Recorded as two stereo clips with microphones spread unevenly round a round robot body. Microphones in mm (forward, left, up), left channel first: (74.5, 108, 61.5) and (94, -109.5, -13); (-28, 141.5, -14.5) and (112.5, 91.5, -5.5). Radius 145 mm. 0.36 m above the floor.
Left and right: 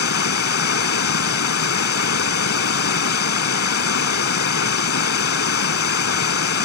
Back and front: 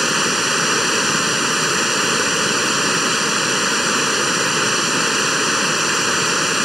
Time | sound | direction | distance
0.0 | running water | 70° left | ?